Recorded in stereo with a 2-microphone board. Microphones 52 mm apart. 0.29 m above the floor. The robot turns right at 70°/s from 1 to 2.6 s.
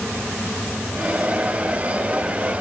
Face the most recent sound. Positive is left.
No sound to turn to.